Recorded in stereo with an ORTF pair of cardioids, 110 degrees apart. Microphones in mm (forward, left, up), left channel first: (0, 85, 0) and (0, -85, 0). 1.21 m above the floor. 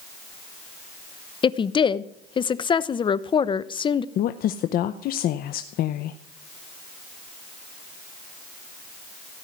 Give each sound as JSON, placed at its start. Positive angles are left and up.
{"t": 1.4, "sound": "a woman speaking", "azimuth_deg": 30, "distance_m": 0.8}
{"t": 4.2, "sound": "a woman speaking", "azimuth_deg": 60, "distance_m": 0.7}